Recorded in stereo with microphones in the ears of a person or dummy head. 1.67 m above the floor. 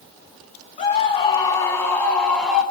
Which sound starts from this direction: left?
A scream, at 0.8 s.